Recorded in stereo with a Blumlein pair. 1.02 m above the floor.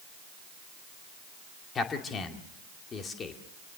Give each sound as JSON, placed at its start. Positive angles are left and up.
{"t": 1.8, "sound": "a man speaking", "azimuth_deg": 20, "distance_m": 2.0}